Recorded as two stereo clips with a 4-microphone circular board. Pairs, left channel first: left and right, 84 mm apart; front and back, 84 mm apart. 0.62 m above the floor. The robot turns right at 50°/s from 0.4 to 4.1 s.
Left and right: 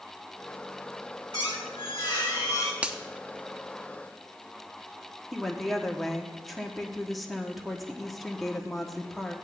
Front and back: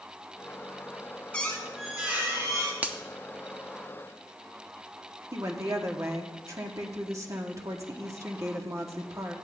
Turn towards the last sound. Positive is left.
turn(degrees=180)